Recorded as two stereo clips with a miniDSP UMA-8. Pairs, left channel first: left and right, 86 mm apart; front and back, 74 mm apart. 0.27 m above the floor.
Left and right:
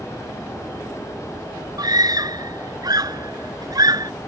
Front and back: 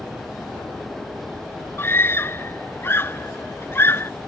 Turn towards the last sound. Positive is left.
turn(degrees=-55)